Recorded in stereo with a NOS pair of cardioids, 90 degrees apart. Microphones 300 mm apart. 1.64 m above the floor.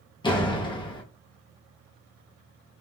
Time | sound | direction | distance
0.2 | a door slam | 15° left | 1.4 m